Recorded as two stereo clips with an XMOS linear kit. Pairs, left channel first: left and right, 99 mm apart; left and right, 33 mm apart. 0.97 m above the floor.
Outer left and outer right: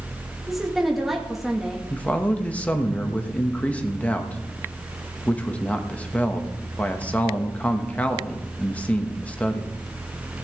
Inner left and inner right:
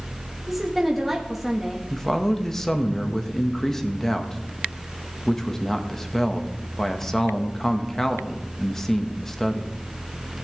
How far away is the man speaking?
About 1.3 m.